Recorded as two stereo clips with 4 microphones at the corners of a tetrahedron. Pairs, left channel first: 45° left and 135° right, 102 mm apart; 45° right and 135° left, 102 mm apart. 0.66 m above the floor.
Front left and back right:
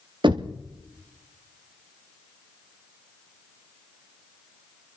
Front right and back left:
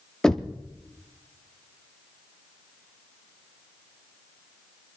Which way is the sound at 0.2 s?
125° right.